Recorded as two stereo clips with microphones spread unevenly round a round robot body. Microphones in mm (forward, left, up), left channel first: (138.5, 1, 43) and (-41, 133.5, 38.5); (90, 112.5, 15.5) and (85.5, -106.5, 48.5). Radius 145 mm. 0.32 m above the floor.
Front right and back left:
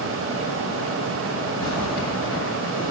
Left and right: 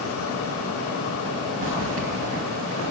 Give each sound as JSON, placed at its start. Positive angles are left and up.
{"t": 1.6, "sound": "a zipper", "azimuth_deg": -65, "distance_m": 1.9}